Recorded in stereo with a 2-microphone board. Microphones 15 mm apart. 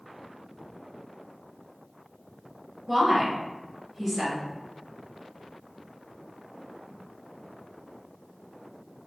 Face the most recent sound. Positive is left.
turn(degrees=-10)  # may be behind; listen again after turning